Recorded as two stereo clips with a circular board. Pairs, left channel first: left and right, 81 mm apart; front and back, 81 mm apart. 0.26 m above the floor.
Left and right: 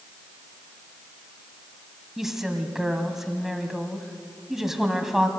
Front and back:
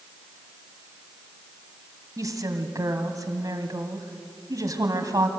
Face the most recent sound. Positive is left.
turn(degrees=-175)